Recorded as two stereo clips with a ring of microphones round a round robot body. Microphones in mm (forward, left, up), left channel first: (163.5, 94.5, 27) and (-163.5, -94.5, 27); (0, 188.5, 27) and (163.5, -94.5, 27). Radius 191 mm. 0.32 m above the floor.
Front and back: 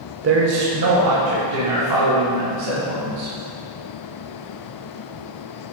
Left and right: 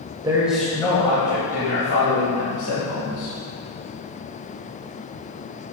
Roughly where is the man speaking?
Behind right.